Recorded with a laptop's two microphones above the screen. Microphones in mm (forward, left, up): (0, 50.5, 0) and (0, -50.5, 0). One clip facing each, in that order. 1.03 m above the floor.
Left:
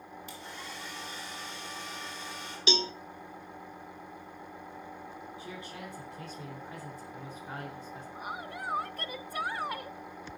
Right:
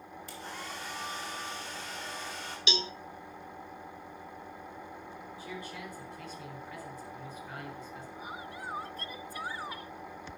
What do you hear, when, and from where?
0.3 s a hair dryer: 40° right (ahead or behind), 3.5 m
2.7 s a cowbell: 35° left (ahead or behind), 0.9 m
5.4 s a man speaking: 50° left (ahead or behind), 4 m
8.2 s a woman speaking: 60° left (ahead or behind), 0.6 m